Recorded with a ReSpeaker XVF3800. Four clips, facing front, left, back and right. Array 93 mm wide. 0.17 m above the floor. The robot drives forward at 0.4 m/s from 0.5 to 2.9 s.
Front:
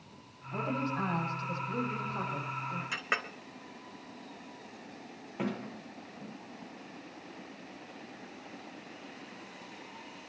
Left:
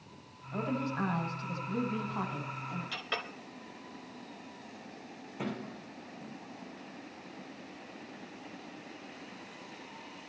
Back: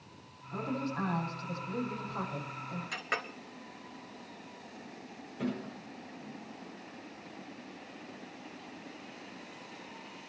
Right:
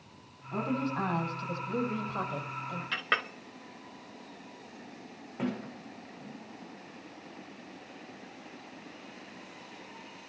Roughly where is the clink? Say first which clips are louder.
Right 11 dB, front 1 dB; ahead right.